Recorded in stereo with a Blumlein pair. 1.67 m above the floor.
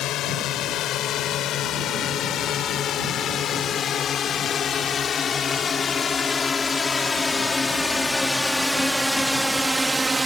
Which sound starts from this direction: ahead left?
A drone, at 0.0 s.